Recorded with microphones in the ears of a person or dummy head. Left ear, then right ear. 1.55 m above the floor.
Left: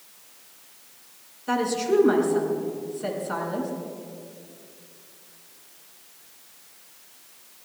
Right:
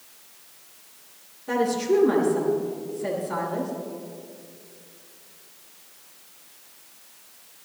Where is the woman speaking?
65° left (ahead or behind), 6.5 m.